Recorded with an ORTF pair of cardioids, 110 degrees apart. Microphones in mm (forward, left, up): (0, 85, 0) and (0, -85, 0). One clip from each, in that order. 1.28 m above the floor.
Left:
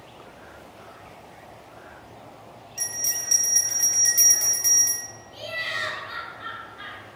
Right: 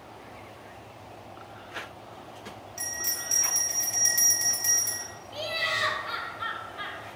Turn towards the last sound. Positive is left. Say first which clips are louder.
# right 1 dB
turn(degrees=-50)